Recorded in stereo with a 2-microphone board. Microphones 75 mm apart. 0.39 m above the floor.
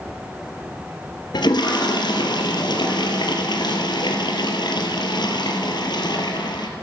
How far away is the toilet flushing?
About 2.0 m.